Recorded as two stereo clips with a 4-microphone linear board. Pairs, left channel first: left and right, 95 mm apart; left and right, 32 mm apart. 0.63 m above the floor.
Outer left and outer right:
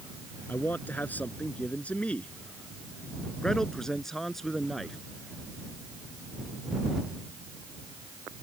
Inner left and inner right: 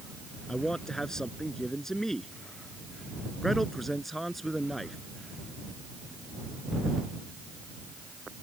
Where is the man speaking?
20° left (ahead or behind); by 5.0 s centre (ahead or behind).